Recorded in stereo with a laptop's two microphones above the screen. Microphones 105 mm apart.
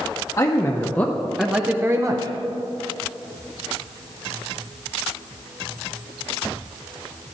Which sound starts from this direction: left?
A man speaking, at 0.4 s.